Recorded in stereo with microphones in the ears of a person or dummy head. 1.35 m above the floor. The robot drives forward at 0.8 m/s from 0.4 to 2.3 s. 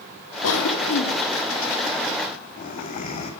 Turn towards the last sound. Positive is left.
turn(degrees=45)  # may be behind; listen again after turning